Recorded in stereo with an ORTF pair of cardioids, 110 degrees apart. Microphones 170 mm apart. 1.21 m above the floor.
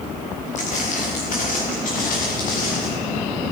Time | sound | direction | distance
0.6 | footsteps | 50° left | 6 m